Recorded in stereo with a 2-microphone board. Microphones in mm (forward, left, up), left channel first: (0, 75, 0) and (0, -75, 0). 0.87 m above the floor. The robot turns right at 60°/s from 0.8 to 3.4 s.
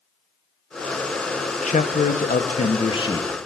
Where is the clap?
No clap in this recording.